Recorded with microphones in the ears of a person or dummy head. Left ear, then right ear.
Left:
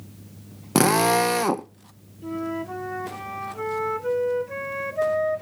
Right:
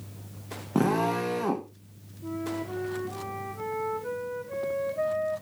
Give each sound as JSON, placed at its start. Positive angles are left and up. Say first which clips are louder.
{"t": 0.8, "sound": "a drill", "louder": "left 7 dB", "side_deg": 70, "distance_m": 0.6}
{"t": 2.2, "sound": "a flute", "louder": "left 4 dB", "side_deg": 75, "distance_m": 0.9}